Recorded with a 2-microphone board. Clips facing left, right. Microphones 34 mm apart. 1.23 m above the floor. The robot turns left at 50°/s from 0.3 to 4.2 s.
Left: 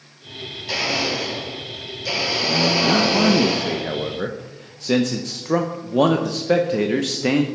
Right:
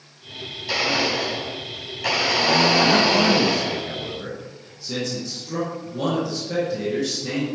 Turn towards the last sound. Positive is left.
turn(degrees=115)